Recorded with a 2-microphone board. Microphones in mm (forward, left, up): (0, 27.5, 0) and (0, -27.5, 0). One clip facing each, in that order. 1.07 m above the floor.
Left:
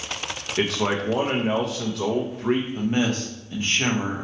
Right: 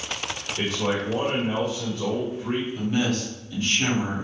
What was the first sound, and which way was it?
A man speaking, 75° left (ahead or behind).